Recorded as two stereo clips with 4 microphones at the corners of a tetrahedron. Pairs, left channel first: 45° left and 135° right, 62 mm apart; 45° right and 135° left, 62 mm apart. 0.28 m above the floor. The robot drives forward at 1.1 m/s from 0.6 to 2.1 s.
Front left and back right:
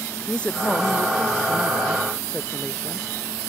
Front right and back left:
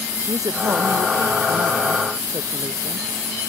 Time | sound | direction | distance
0.3 | a woman speaking | 120° left | ?